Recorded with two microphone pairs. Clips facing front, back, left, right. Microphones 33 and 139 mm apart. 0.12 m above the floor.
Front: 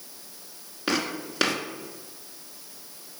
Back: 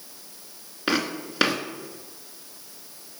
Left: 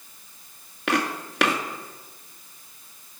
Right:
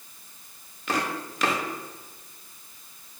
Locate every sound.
0.9 s footsteps: 100° left, 2 m